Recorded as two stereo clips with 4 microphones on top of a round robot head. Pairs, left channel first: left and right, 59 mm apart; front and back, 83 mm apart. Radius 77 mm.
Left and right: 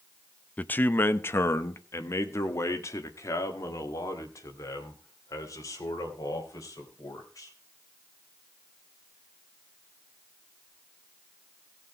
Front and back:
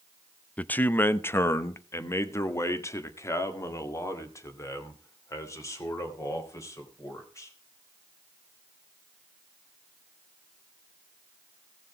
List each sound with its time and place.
0.6 s a man speaking: 55° left, 0.6 m; by 7.5 s 50° left, 4 m